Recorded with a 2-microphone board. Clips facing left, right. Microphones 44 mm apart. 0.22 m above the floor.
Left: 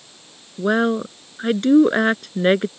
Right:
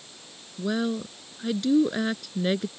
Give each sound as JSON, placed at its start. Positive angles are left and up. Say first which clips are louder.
{"t": 0.6, "sound": "a woman speaking", "louder": "left 9 dB", "side_deg": 50}